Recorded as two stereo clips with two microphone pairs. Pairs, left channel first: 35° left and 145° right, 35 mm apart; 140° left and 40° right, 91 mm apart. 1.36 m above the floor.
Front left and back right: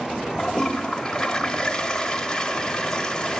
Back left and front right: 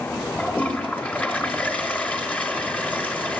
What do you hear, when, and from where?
0.4 s a toilet flushing: 95° left, 1.2 m